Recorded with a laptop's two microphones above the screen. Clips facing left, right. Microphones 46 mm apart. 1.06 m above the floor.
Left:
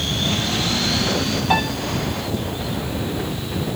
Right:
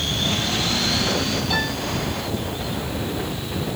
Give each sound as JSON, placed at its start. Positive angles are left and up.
{"t": 1.5, "sound": "a piano", "side_deg": 45, "distance_m": 8.5}